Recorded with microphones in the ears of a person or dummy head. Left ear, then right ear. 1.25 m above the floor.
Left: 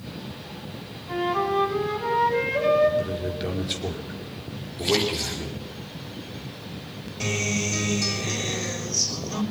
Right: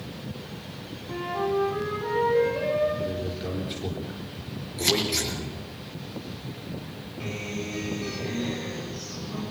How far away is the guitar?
About 3.5 m.